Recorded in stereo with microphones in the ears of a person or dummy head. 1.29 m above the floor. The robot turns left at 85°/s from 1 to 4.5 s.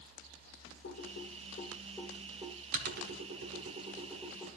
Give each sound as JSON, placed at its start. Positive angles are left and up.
{"t": 0.8, "sound": "typing on a keyboard", "side_deg": 60, "distance_m": 1.5}